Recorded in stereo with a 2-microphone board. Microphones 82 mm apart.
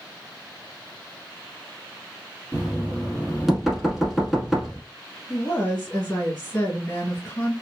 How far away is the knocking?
About 0.9 m.